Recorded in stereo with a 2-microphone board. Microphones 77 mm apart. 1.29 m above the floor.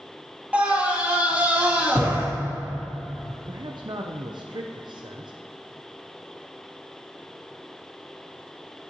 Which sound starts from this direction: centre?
A scream, at 0.5 s.